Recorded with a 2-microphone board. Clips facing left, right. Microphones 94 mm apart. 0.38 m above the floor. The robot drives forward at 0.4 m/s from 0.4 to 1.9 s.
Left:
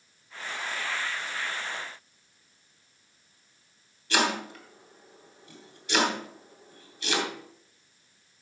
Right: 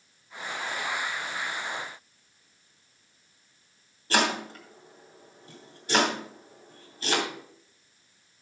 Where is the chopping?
40° right (ahead or behind), 3 m.